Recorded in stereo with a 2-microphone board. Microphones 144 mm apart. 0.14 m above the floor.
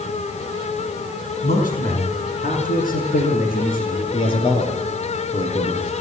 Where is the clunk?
No clunk in this recording.